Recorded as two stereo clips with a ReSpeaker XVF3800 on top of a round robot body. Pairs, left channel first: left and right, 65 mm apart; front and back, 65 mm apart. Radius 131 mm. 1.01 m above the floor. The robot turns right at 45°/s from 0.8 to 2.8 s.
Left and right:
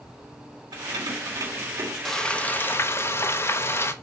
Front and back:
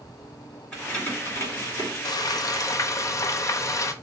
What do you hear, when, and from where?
0.7 s keys jangling: 80° right, 2.5 m; by 1.9 s 30° right, 2.5 m
2.0 s frying: 5° left, 0.9 m; by 3.9 s 40° left, 0.9 m